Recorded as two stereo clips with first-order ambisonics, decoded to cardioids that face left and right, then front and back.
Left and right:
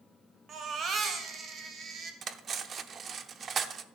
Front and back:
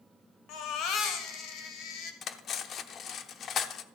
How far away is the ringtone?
No ringtone in this recording.